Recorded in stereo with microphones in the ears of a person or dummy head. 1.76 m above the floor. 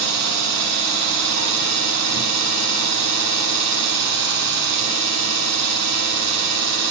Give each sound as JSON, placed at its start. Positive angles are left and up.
{"t": 0.0, "sound": "an engine running", "side_deg": -60, "distance_m": 6.5}